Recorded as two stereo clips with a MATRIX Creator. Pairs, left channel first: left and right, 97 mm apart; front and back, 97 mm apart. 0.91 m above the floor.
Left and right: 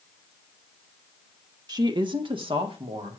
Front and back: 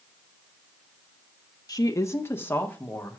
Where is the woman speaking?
45° right, 1.0 m; by 3.2 s 75° right, 2 m.